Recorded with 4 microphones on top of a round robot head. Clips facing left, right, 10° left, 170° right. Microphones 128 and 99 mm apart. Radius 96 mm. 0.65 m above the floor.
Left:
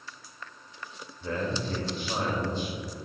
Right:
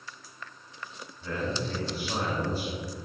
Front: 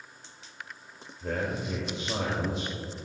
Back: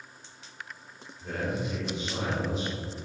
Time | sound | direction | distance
1.2 | a man speaking | 25° left | 3.5 m